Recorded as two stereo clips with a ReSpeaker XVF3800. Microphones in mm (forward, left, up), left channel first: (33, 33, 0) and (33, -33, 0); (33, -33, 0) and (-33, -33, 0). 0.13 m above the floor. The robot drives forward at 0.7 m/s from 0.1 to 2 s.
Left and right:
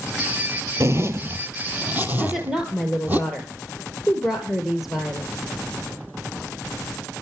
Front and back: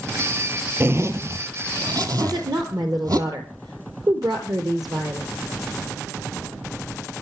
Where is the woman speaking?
175° right, 3 m.